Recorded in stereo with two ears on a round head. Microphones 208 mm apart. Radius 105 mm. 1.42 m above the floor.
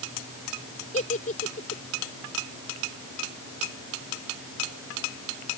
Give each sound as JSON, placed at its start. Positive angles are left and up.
{"t": 0.9, "sound": "a giggle", "side_deg": 30}